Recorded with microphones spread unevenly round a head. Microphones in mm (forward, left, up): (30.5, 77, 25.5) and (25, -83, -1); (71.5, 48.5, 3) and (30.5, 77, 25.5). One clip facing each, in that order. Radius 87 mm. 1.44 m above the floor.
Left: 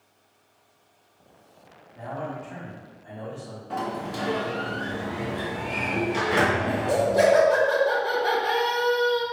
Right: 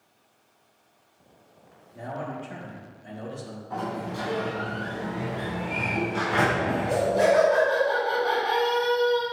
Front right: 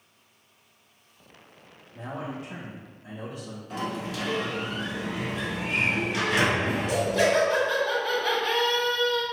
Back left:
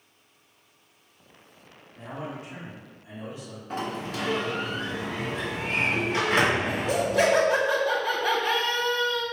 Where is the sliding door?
100° left, 1.8 m.